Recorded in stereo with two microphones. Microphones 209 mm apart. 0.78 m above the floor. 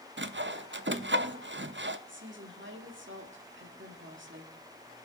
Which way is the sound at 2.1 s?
65° right (ahead or behind).